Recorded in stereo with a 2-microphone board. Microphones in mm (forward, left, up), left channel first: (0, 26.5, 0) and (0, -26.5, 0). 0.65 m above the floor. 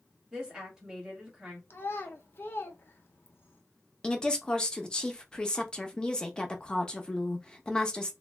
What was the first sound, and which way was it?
A woman speaking, 15° right (ahead or behind).